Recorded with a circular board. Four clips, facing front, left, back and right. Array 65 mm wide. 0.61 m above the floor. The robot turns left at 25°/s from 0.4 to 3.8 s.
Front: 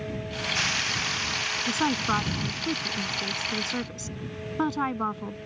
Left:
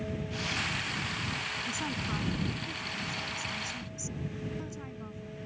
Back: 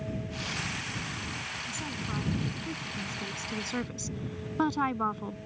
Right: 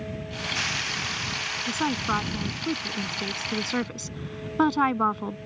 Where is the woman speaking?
35° right; by 5.4 s 85° right.